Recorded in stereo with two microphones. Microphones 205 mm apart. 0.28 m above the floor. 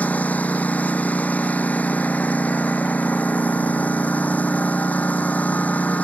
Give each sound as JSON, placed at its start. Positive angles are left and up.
{"t": 0.0, "sound": "a lawn mower", "side_deg": 5}